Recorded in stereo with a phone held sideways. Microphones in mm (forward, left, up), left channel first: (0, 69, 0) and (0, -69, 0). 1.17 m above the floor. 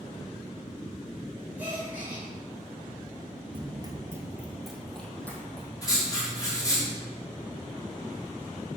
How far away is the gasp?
About 3 m.